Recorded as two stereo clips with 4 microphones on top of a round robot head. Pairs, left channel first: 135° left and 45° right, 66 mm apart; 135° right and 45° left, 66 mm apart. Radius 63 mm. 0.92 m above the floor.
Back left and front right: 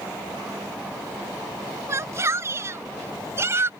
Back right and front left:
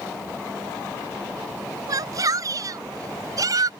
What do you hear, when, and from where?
1.9 s a shout: 5° left; by 3.7 s 10° left